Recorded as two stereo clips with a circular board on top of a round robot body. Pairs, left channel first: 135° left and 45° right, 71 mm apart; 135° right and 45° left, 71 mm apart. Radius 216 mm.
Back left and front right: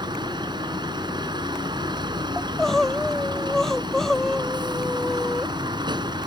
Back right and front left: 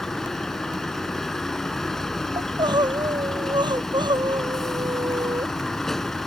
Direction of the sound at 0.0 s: 50° right.